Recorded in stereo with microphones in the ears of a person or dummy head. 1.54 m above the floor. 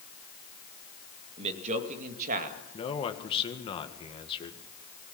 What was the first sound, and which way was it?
A man speaking, 35° right (ahead or behind).